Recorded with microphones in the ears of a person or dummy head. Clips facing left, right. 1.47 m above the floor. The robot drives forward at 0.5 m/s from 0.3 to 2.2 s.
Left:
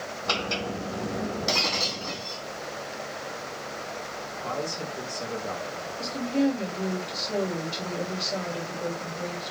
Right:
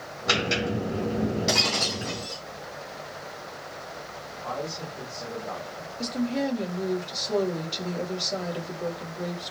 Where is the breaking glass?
Centre (ahead or behind), 4.5 m; by 2.4 s 5° right (ahead or behind), 4 m.